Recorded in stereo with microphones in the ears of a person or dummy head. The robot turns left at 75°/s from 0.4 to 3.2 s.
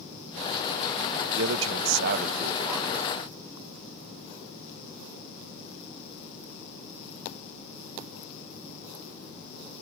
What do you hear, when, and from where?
1.4 s a man speaking: 70° right; by 3.0 s 165° left